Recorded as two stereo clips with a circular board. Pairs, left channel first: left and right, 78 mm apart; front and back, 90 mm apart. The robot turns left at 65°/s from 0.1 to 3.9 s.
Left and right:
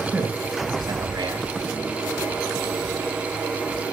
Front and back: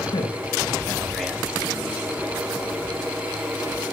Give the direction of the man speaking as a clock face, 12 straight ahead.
12 o'clock.